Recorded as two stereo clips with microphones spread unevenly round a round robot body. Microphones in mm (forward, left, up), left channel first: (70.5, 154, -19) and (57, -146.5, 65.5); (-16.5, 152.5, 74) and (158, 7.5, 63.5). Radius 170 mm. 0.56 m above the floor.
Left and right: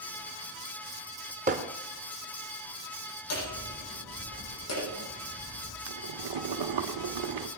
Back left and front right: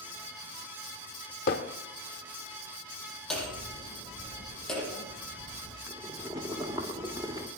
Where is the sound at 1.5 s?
165° right, 0.8 m.